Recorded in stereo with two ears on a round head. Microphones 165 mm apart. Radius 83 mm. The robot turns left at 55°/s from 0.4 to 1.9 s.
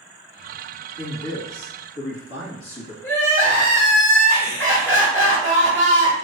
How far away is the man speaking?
About 1.6 m.